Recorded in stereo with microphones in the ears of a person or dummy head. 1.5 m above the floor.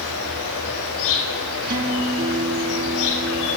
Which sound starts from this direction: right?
A guitar, at 1.6 s.